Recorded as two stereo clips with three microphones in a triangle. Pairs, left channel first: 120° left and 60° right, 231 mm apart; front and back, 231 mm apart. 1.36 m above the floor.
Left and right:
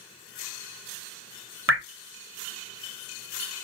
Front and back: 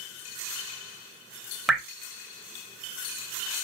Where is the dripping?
90° right, 0.6 m.